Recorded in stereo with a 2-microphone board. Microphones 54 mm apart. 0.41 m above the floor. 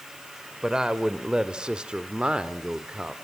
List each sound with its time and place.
0.6 s a woman speaking: 15° right (ahead or behind), 1.5 m